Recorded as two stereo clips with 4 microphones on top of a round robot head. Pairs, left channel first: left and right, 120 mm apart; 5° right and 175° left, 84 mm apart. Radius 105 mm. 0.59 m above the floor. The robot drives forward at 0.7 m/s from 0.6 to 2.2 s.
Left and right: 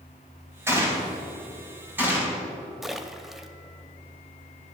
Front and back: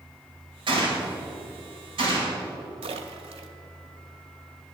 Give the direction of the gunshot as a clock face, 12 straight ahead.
5 o'clock.